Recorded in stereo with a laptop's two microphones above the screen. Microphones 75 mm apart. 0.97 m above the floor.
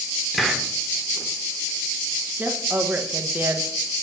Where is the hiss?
Centre (ahead or behind), 0.7 m.